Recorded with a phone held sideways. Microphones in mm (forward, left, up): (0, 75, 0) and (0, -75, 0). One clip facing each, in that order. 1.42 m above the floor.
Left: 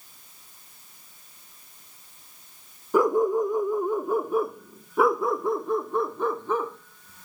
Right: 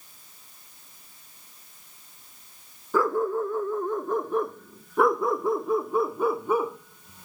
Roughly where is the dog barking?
Centre.